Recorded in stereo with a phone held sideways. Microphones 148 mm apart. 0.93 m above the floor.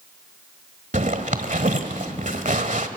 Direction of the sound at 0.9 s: 60° right (ahead or behind).